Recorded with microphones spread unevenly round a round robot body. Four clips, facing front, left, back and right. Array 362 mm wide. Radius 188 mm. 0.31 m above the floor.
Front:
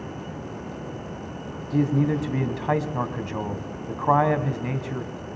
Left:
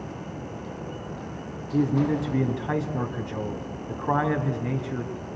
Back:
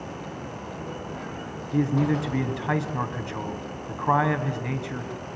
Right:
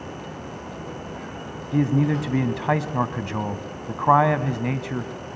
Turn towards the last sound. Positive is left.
turn(degrees=-80)